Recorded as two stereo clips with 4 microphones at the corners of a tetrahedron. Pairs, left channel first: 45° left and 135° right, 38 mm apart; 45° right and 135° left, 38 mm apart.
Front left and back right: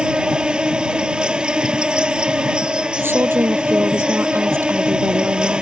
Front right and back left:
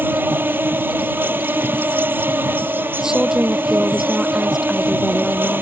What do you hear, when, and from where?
0.0 s an insect: 160° left
3.0 s a woman speaking: 150° right